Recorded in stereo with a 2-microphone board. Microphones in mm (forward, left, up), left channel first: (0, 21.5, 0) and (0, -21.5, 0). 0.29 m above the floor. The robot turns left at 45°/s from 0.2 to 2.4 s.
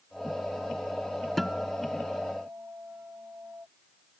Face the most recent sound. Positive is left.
turn(degrees=-45)